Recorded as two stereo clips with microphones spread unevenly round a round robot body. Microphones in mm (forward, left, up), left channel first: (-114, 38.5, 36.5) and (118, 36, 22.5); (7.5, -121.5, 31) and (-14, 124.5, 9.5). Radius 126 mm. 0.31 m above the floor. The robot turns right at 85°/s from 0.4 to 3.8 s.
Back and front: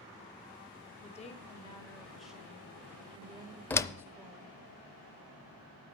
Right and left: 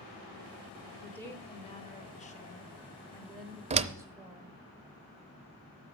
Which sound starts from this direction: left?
A door slam, at 3.7 s.